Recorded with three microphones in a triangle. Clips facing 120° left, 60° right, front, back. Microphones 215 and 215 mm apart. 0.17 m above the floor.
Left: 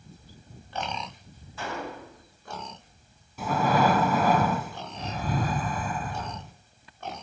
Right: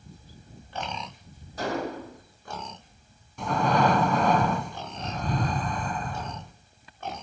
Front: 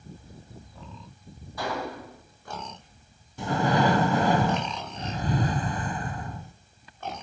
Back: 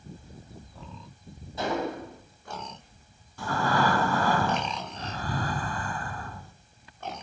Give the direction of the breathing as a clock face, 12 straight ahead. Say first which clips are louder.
Even, front 3 dB; 11 o'clock.